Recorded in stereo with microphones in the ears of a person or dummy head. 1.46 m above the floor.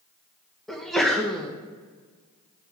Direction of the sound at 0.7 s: Centre (ahead or behind).